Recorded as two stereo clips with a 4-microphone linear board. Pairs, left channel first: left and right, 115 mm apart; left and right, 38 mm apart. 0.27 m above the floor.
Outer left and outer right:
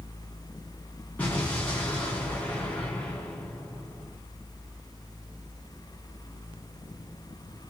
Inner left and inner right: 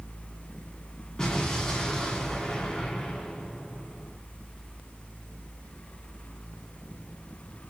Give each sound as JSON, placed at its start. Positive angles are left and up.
{"t": 1.2, "sound": "an explosion", "side_deg": 15, "distance_m": 1.9}